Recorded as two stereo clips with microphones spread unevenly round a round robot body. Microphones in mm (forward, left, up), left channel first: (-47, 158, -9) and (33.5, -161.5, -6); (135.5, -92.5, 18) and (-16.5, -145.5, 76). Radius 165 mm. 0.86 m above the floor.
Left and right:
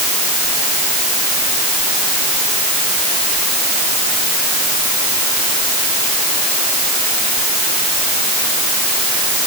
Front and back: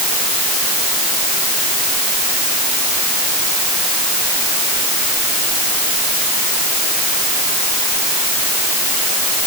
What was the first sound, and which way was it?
Only background noise.